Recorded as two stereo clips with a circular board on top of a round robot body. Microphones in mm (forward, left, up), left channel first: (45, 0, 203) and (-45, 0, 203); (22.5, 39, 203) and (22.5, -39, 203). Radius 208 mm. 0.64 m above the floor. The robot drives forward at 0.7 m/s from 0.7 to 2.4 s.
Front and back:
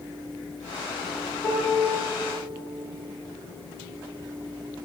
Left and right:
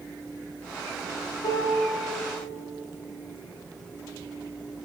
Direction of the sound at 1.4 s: 65° left.